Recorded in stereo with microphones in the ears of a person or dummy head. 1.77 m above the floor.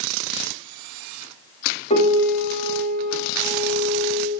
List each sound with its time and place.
1.9 s a piano: 40° left (ahead or behind), 0.9 m